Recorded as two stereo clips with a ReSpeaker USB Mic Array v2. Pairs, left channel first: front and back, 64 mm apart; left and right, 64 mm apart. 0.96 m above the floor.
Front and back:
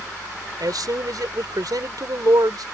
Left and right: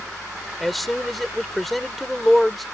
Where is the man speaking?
Straight behind.